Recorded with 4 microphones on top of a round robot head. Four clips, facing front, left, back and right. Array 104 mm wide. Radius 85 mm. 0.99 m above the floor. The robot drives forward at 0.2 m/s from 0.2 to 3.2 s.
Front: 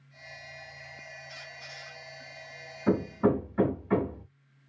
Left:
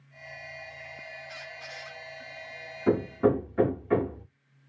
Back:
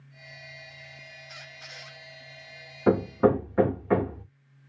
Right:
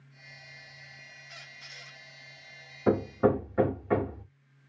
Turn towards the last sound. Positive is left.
turn(degrees=-160)